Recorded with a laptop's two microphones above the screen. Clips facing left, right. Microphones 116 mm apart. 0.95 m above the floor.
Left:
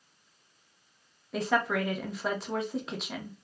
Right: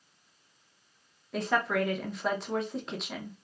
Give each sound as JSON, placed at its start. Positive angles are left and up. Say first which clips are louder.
{"t": 1.3, "sound": "a woman speaking", "louder": "even", "side_deg": 0, "distance_m": 0.6}